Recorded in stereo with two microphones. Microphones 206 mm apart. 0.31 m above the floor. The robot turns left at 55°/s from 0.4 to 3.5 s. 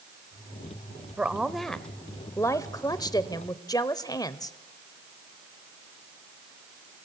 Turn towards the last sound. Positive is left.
turn(degrees=20)  # may be behind; listen again after turning